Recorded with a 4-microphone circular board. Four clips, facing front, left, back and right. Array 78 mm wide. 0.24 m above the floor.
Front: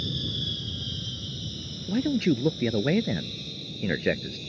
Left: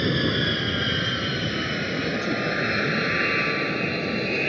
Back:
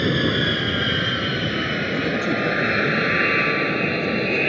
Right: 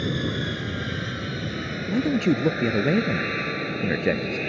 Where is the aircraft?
160° left; by 4.5 s 170° left.